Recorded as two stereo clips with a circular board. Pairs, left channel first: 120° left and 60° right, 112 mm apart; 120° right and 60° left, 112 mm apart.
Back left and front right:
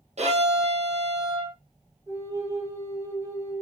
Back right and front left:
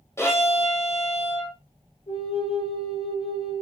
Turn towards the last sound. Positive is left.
turn(degrees=-115)